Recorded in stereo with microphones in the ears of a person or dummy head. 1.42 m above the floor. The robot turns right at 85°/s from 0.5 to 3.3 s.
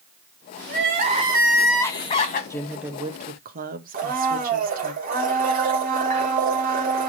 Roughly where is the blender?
Right.